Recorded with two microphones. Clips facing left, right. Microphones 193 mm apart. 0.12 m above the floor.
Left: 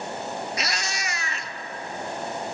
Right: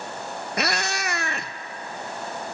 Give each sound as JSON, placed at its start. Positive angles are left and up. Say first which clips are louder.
{"t": 0.6, "sound": "a cat meowing", "louder": "right 5 dB", "side_deg": -60, "distance_m": 0.5}